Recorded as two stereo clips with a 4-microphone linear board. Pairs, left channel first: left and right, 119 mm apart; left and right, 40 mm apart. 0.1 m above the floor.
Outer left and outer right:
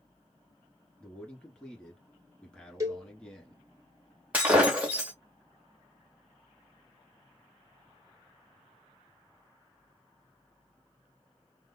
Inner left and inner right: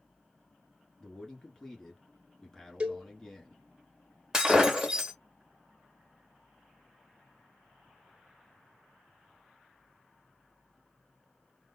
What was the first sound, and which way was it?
A man speaking, 10° left (ahead or behind).